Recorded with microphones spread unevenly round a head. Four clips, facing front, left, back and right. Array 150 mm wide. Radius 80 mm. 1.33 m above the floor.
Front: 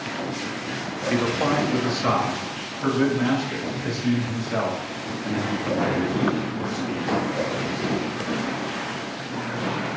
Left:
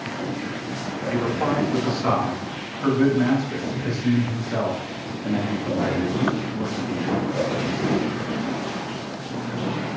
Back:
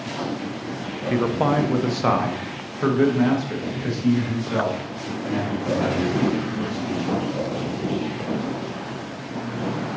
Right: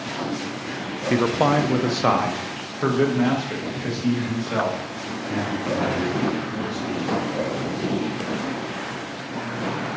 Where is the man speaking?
80° right, 0.6 m; by 7.1 s 120° right, 3.5 m.